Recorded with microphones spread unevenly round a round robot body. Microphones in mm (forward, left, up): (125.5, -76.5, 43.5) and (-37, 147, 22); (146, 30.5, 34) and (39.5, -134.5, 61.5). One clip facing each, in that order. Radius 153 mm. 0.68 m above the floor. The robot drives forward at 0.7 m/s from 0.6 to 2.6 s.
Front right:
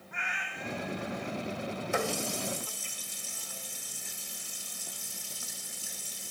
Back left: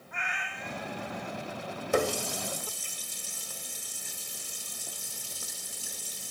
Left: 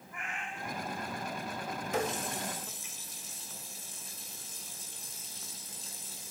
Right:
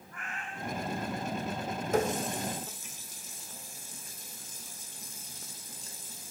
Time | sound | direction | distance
0.1 | a cat meowing | 135° left | 2.5 m
1.9 | a running tap | straight behind | 1.2 m